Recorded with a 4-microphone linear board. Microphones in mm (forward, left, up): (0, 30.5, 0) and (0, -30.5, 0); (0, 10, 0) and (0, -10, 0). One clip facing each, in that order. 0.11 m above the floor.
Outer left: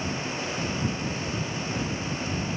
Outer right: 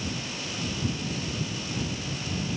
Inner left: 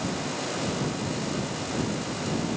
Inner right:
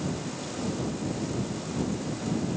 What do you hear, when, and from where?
Only background noise.